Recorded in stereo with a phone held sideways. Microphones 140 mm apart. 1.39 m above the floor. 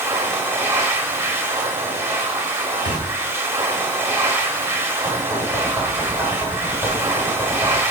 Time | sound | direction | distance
0.0 | a machine running | 20° right (ahead or behind) | 1.0 m
2.8 | a thud | 50° left (ahead or behind) | 2.5 m
5.0 | knocking | centre (ahead or behind) | 5.5 m